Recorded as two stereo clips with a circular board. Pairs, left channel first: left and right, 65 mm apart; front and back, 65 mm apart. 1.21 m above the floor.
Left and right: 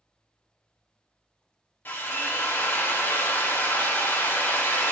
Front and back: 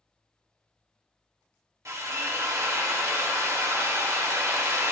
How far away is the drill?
About 1.3 m.